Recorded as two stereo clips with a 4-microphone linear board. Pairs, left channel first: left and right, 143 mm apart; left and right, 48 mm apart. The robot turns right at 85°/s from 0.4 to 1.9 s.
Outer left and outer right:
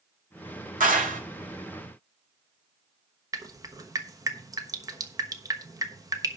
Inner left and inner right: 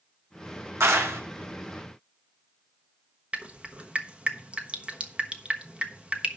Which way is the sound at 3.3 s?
25° right (ahead or behind).